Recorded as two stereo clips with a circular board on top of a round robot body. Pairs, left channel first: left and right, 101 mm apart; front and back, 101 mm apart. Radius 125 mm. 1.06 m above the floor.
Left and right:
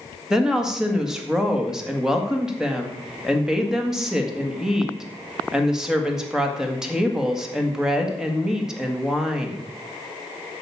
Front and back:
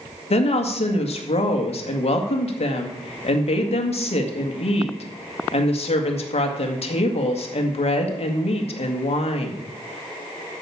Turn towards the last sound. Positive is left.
turn(degrees=-5)